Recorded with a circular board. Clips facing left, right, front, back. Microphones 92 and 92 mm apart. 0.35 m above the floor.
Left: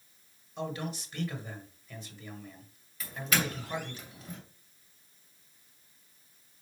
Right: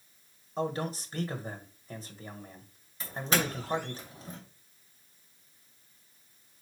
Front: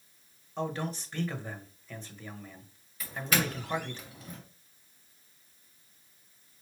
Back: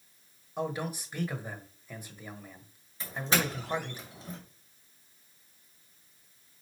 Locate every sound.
0.6 s a man speaking: 110° right, 1.5 m
3.0 s a doorbell: 135° right, 2.5 m